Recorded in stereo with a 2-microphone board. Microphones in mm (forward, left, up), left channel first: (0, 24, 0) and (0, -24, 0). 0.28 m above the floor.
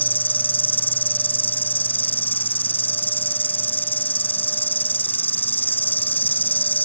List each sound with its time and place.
0.0 s an insect: 40° left (ahead or behind)